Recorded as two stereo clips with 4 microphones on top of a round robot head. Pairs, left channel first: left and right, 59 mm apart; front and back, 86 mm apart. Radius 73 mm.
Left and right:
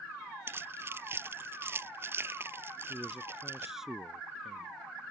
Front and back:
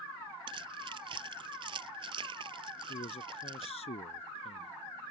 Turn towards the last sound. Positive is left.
turn(degrees=-5)